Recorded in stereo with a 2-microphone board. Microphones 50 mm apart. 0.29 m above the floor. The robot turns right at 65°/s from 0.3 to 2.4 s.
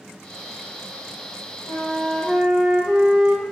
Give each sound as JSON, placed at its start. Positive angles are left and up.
{"t": 1.7, "sound": "a flute", "azimuth_deg": 120, "distance_m": 3.0}